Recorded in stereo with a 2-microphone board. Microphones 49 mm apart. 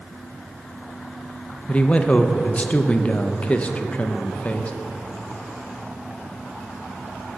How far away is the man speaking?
About 0.7 m.